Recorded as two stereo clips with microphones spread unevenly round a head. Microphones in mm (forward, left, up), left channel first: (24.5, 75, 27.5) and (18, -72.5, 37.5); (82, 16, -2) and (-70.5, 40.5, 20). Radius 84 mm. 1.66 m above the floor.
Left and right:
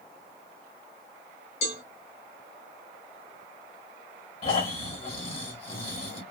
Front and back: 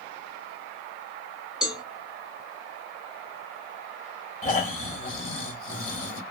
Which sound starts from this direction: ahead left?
Snoring, at 4.4 s.